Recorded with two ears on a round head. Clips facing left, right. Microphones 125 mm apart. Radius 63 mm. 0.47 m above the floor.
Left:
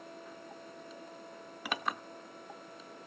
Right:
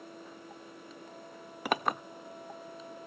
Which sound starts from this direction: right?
A clink, at 1.6 s.